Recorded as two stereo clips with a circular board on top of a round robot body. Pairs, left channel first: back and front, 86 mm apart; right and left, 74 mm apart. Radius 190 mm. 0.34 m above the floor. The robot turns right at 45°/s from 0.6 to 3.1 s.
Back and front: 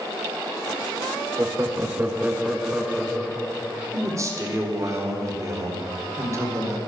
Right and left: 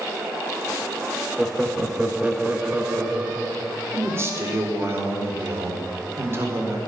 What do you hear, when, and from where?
1.4 s laughter: 10° left, 0.9 m; by 3.7 s 90° left, 0.9 m
3.9 s a man speaking: 45° left, 2.0 m